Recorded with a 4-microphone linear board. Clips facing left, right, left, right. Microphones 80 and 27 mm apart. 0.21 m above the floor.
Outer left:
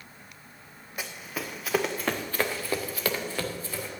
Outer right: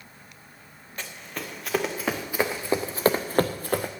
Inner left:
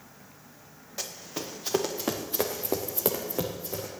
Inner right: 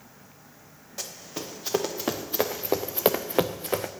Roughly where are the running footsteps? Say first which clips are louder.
Outer left 1 dB, even; centre.